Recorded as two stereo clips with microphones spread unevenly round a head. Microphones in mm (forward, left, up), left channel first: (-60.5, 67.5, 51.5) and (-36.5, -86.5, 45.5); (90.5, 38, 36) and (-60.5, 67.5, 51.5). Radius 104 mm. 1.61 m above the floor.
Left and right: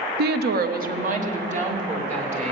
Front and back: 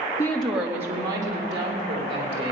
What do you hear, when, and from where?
0.2 s a woman speaking: 80° right, 0.7 m; by 2.5 s 125° right, 3.5 m